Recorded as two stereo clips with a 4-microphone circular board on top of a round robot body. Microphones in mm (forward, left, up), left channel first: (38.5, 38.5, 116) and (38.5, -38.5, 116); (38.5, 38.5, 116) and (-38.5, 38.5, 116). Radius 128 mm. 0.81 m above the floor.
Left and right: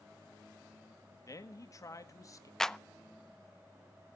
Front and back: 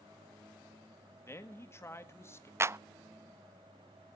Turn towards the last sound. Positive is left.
turn(degrees=165)